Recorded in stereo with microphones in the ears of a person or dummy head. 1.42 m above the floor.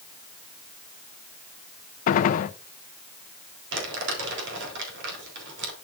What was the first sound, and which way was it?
A gunshot, 50° left (ahead or behind).